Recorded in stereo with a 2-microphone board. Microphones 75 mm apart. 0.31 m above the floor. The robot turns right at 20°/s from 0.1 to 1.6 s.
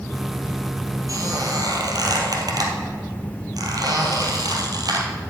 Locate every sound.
1.1 s a squeak: 45° right (ahead or behind), 2 m; by 5.1 s 55° right (ahead or behind), 2 m